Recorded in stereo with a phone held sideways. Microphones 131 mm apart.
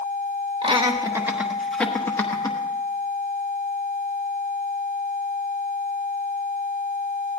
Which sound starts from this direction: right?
Laughter, at 0.6 s.